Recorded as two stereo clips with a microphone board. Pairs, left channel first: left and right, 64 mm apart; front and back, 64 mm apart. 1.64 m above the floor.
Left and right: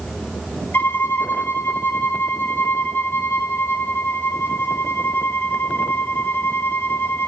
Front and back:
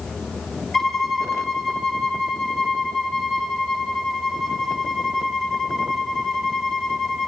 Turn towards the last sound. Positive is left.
turn(degrees=80)